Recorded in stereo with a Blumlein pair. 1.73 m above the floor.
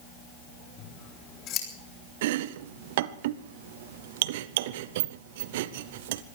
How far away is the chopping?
About 0.7 m.